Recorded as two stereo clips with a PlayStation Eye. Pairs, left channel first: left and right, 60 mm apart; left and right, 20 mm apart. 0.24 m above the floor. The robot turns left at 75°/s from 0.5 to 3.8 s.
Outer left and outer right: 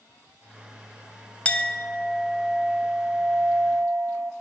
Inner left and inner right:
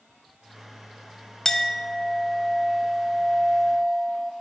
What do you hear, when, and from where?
1.4 s a clink: 20° left (ahead or behind), 0.5 m; by 4.3 s 25° right (ahead or behind), 0.5 m